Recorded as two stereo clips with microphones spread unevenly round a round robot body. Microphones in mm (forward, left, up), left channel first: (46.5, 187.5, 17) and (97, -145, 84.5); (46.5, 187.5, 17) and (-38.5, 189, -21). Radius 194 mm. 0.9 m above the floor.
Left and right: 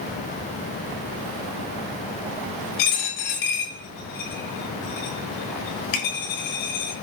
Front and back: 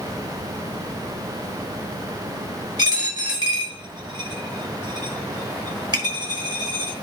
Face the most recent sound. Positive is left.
turn(degrees=135)